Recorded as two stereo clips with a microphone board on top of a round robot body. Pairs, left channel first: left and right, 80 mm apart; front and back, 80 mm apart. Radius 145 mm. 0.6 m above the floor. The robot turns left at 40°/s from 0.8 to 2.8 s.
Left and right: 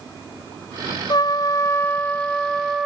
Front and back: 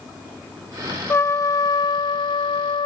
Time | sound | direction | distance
1.1 | a trumpet | 60° left | ?